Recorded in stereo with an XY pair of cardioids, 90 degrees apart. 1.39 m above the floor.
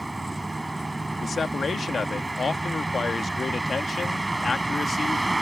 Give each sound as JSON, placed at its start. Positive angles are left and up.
{"t": 0.0, "sound": "a vehicle", "azimuth_deg": -15}
{"t": 1.2, "sound": "a man speaking", "azimuth_deg": 45}